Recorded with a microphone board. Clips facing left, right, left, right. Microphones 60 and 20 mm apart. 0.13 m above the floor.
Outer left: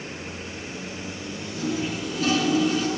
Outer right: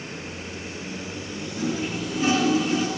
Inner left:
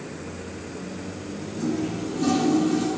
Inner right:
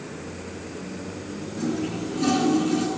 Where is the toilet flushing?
25° right (ahead or behind), 1.5 m.